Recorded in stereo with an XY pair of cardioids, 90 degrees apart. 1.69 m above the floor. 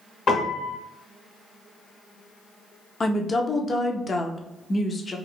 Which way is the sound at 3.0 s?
40° left.